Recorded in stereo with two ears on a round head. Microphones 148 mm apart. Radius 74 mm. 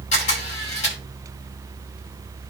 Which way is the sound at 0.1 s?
45° left (ahead or behind).